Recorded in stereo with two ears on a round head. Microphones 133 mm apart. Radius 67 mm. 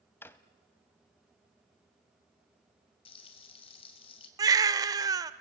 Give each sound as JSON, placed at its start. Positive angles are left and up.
{"t": 0.2, "sound": "a drawer", "side_deg": 15, "distance_m": 1.0}
{"t": 3.0, "sound": "frying", "side_deg": 35, "distance_m": 3.0}
{"t": 4.4, "sound": "a baby crying", "side_deg": -25, "distance_m": 0.9}